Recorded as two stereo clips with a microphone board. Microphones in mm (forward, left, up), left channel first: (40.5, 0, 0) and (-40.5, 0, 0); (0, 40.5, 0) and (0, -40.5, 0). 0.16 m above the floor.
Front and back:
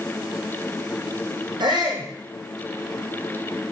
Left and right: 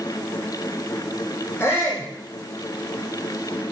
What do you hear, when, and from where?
1.6 s a shout: 150° left, 7 m